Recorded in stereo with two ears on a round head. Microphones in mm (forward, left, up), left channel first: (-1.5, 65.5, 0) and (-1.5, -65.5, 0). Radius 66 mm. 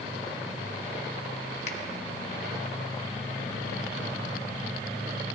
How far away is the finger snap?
About 1.3 m.